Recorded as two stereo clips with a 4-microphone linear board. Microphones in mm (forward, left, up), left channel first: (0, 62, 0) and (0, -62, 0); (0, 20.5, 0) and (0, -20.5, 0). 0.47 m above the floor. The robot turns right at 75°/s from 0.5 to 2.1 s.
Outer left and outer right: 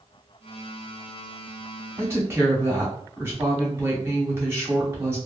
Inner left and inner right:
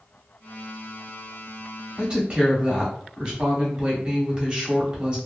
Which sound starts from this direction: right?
A woman speaking, at 2.0 s.